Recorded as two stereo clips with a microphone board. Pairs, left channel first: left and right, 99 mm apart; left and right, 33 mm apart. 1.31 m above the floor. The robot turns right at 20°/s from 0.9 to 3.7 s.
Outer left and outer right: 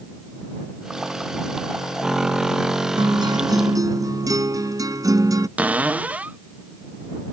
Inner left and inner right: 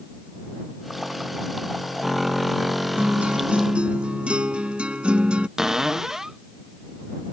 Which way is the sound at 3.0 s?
50° right (ahead or behind).